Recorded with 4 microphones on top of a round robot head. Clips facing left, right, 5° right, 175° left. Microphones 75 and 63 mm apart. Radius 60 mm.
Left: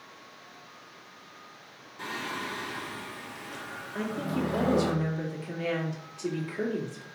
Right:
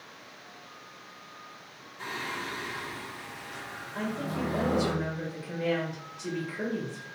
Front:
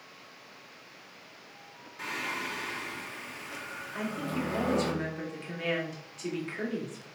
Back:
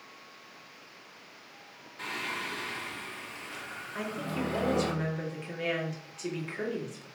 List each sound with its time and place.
2.0 s singing: 70° left, 1.5 m
3.9 s a woman speaking: 85° left, 2.0 m